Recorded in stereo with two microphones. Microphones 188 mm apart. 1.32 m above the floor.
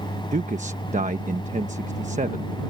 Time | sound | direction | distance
0.3 | a man speaking | 40° right (ahead or behind) | ?